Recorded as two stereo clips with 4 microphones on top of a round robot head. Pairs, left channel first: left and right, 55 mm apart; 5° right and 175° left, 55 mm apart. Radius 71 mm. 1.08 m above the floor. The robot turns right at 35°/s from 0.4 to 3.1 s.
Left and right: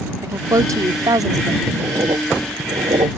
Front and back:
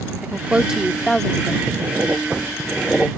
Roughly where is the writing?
Behind right.